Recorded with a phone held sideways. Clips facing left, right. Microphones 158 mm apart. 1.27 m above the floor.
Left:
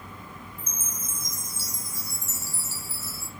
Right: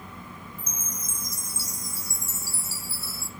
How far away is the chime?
About 1.0 m.